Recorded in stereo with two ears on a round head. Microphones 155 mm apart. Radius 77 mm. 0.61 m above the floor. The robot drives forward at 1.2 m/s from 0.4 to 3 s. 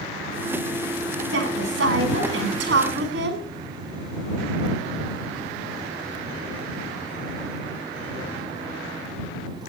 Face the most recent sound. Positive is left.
turn(degrees=-75)  # may be behind; listen again after turning